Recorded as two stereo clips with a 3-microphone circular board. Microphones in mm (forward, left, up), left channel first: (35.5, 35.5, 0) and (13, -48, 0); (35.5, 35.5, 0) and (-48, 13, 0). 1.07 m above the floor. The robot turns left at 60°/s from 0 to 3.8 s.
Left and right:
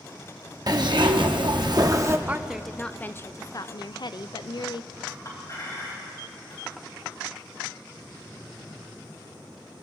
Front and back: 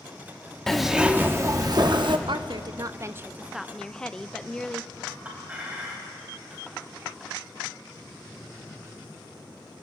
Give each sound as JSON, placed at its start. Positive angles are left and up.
{"t": 0.7, "sound": "a zipper", "azimuth_deg": -70, "distance_m": 0.9}
{"t": 2.3, "sound": "a woman speaking", "azimuth_deg": -175, "distance_m": 0.5}
{"t": 5.1, "sound": "a clink", "azimuth_deg": 120, "distance_m": 4.0}